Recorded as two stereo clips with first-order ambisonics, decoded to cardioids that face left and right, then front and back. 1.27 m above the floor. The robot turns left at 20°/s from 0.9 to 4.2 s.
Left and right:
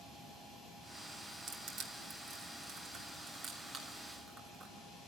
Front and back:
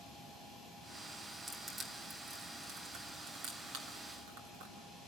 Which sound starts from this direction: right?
Crushing, at 1.5 s.